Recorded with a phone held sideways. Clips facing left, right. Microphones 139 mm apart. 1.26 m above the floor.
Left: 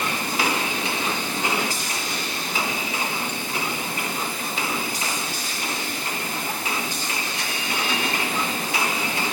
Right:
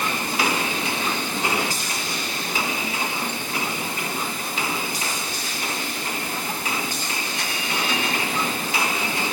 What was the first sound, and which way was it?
Only background noise.